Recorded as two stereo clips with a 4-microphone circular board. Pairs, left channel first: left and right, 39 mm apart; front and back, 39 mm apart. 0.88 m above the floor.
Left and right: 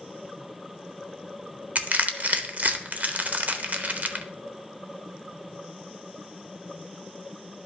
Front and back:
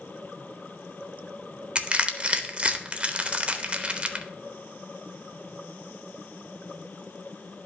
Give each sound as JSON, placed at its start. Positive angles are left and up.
{"t": 1.8, "sound": "crushing", "azimuth_deg": -125, "distance_m": 0.8}